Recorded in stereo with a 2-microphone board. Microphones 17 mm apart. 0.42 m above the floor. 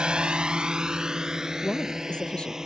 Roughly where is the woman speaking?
Left.